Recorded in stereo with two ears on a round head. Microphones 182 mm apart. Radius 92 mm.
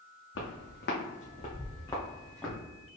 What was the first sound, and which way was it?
Footsteps, 65° left (ahead or behind).